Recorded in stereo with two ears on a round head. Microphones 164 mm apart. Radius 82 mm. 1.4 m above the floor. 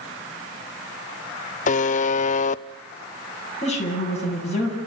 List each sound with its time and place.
1.7 s a buzzer: 40° left (ahead or behind), 0.6 m
3.6 s a woman speaking: 40° left (ahead or behind), 9 m